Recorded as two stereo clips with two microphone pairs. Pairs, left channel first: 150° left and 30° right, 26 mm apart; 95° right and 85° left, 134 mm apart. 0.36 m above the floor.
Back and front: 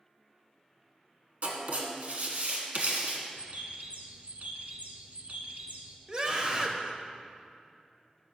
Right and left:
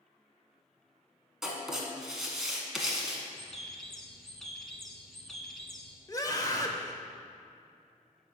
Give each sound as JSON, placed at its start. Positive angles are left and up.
{"t": 1.4, "sound": "writing", "azimuth_deg": 0, "distance_m": 1.3}
{"t": 3.4, "sound": "a bird", "azimuth_deg": -10, "distance_m": 0.9}
{"t": 6.1, "sound": "a scream", "azimuth_deg": -55, "distance_m": 0.9}